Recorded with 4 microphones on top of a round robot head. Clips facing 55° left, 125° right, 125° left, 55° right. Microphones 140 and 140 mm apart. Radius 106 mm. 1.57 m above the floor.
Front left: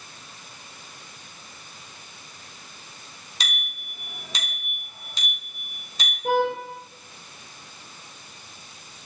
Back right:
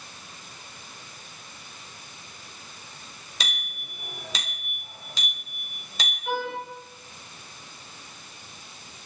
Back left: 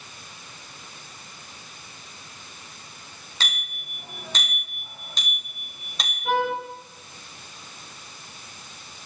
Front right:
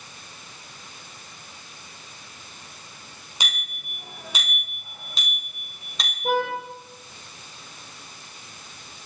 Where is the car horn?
5° left, 5 m.